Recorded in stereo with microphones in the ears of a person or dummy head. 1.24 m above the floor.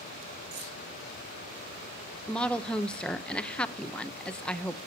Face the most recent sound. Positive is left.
turn(degrees=5)  # may be behind; listen again after turning